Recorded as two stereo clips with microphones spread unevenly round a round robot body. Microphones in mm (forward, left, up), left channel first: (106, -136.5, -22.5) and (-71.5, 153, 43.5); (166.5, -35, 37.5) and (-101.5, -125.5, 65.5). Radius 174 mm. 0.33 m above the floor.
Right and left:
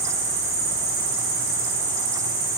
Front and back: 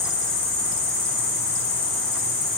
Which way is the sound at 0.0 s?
50° left.